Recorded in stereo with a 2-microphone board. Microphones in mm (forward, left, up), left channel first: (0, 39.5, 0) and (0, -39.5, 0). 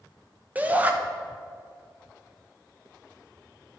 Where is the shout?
20° right (ahead or behind), 0.9 m.